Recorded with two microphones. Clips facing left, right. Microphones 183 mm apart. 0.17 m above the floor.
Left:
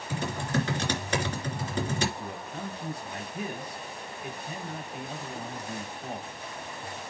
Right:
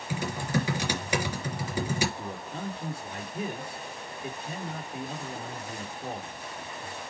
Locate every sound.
0.1 s typing on a keyboard: 10° right (ahead or behind), 3 m
2.2 s a man speaking: 25° right (ahead or behind), 4 m